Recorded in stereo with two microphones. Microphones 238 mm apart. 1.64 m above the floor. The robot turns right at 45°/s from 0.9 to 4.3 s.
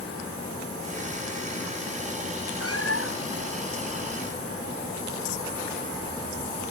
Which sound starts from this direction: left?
A cat meowing, at 2.6 s.